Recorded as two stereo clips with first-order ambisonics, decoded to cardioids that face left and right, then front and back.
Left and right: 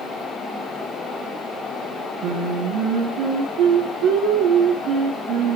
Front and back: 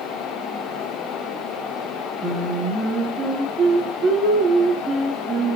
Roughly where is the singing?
Behind right.